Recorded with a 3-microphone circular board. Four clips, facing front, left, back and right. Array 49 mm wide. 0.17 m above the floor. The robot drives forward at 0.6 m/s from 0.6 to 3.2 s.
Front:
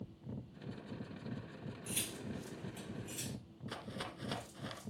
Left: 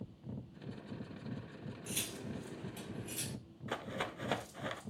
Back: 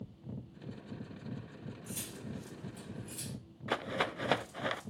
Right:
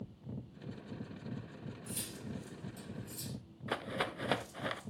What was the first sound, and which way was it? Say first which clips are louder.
Cutlery clinking: left 3 dB, front 2 dB; 50° left.